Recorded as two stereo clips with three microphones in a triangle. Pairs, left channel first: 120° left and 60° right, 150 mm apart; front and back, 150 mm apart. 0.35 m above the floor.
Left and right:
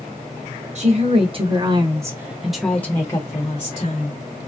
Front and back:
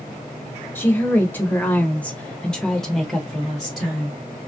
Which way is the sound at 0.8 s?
75° right.